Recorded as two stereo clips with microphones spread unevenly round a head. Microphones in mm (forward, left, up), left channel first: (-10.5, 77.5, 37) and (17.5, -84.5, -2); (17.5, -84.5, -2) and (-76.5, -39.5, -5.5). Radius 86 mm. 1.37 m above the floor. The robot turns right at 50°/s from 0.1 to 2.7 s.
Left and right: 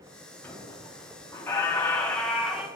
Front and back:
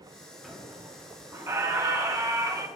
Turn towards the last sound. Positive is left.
turn(degrees=180)